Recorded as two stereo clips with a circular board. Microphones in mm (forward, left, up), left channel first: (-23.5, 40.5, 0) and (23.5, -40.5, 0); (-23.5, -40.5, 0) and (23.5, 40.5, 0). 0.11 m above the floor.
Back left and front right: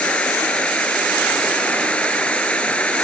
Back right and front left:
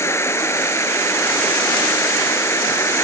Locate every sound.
0.0 s an insect: 170° right